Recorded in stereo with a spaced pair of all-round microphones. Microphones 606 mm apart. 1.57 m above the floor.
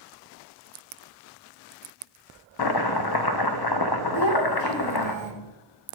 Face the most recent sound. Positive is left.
turn(degrees=45)  # may be behind; listen again after turning